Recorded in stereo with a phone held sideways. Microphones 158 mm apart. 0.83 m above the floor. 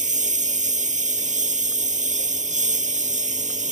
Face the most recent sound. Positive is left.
turn(degrees=-50)  # may be behind; listen again after turning